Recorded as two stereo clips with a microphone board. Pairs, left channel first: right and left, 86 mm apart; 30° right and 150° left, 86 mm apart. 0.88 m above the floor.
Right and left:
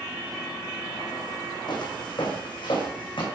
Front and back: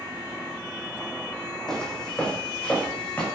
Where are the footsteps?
115° right, 2.5 m; by 3.3 s 105° right, 3.5 m.